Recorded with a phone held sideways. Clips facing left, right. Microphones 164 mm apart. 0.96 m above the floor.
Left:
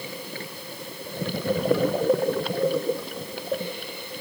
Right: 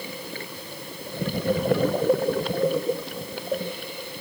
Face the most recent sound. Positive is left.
No sound to turn to.